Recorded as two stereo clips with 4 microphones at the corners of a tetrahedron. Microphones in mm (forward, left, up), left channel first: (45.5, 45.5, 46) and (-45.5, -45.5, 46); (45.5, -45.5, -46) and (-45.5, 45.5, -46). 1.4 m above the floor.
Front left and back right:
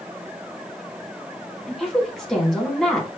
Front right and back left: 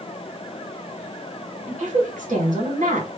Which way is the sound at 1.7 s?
135° left.